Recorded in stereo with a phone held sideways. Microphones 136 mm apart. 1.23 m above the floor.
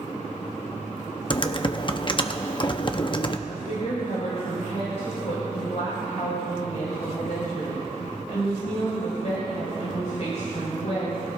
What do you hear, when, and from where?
1.3 s typing on a keyboard: 35° left (ahead or behind), 0.7 m
3.5 s a woman speaking: 65° left (ahead or behind), 4.5 m